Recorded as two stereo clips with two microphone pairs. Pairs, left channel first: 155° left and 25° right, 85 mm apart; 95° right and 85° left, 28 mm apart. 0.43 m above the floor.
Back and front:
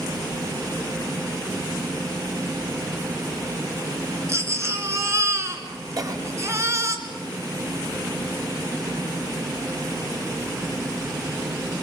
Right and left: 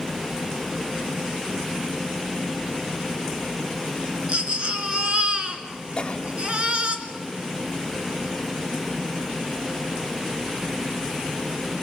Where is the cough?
50° right, 1.6 m.